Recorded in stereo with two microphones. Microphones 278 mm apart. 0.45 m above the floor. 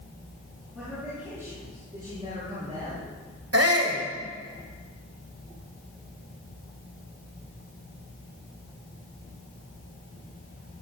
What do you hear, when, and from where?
0.8 s a man speaking: 5° right (ahead or behind), 7 m; by 3.1 s 25° right (ahead or behind), 8.5 m
3.5 s a shout: 60° right (ahead or behind), 2 m